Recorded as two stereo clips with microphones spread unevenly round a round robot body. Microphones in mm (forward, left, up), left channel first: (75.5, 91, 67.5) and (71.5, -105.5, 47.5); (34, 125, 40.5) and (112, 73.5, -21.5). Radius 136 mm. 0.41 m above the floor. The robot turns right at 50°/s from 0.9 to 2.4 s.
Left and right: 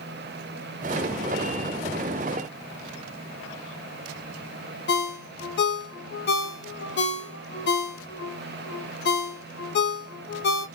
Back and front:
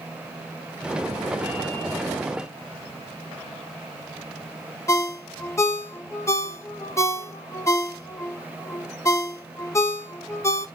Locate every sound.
4.9 s a ringtone: 65° left, 0.6 m